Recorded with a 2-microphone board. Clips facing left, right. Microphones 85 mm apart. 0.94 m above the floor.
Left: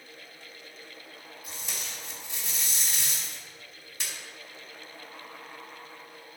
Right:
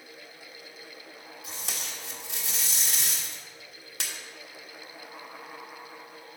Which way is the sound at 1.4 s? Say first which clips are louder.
Right 2 dB; 65° right (ahead or behind).